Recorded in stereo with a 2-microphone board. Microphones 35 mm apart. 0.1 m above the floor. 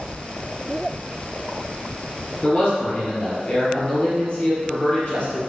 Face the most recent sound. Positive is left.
turn(degrees=35)  # may be behind; listen again after turning